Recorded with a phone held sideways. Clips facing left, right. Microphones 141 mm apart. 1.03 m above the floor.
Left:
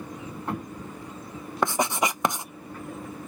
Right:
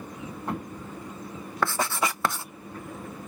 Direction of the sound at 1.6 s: 20° left (ahead or behind).